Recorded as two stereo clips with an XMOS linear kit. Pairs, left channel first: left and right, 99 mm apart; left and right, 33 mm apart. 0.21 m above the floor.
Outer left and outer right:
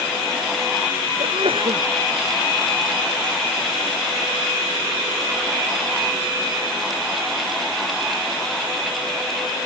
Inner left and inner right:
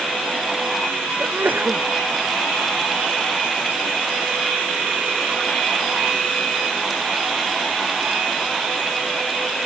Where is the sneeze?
65° right (ahead or behind).